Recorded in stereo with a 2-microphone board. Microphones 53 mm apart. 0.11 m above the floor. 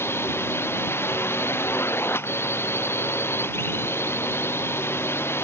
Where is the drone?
45° left (ahead or behind).